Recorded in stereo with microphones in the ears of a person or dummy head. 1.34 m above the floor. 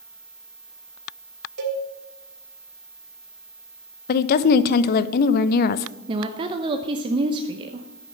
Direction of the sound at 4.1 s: 50° left (ahead or behind).